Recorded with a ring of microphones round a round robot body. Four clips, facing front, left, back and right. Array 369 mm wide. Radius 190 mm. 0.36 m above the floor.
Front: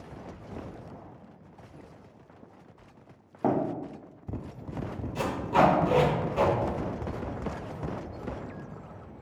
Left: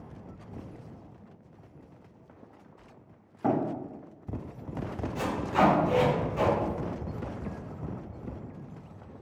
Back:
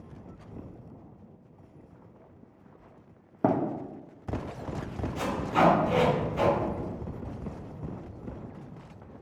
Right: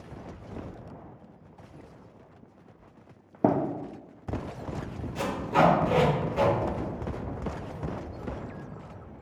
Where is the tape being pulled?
35° right, 1.7 m.